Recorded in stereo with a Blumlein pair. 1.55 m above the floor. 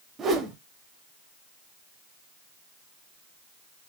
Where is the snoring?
I don't hear snoring.